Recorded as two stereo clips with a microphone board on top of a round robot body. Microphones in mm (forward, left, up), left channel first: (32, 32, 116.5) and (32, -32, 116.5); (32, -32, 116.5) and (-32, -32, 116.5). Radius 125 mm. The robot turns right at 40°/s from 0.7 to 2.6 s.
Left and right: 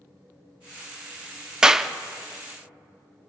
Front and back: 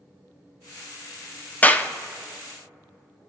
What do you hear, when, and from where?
1.6 s a clap: 25° right, 0.9 m; by 1.9 s 10° right, 0.9 m